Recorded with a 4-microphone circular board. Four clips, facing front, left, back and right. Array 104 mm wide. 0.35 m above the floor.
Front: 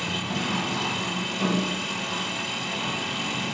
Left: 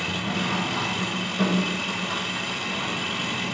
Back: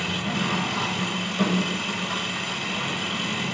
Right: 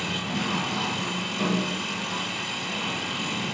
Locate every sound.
0.0 s an engine running: 135° left, 3 m